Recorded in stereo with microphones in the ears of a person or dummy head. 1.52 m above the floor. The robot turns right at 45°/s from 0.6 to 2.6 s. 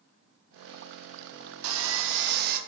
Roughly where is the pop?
I don't hear a pop.